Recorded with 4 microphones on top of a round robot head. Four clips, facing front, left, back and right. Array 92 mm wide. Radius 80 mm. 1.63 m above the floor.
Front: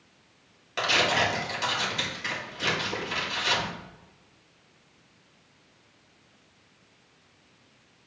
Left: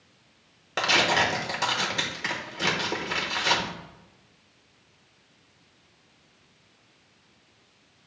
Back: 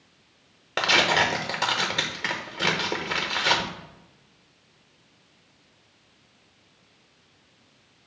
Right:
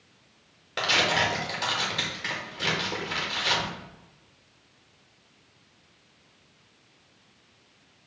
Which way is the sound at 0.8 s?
165° left.